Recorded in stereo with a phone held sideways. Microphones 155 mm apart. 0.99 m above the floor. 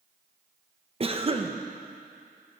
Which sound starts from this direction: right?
A cough, at 1.0 s.